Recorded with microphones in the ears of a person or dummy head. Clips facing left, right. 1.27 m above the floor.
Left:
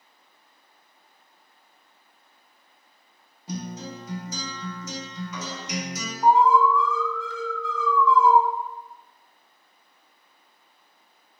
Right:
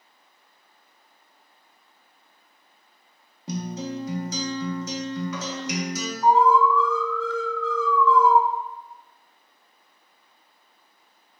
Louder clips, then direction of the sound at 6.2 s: Even; 20° left (ahead or behind).